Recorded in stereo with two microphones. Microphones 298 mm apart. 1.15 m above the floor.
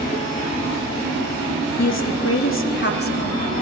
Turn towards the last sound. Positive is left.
turn(degrees=25)  # may be behind; listen again after turning